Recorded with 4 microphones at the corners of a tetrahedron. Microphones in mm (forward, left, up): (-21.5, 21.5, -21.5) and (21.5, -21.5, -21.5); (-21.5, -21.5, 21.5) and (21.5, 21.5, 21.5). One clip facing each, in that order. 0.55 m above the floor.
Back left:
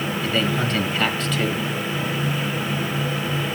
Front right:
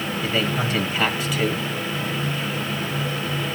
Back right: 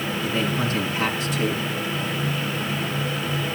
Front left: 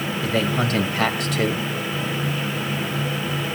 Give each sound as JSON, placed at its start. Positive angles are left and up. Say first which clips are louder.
{"t": 0.2, "sound": "a man speaking", "louder": "back left 1 dB, front left 3 dB", "azimuth_deg": 35, "distance_m": 2.0}